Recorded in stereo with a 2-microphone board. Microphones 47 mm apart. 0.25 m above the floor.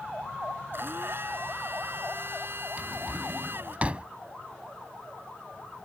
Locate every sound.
0.7 s a blender: 55° right (ahead or behind)
2.8 s a drawer: 30° right (ahead or behind)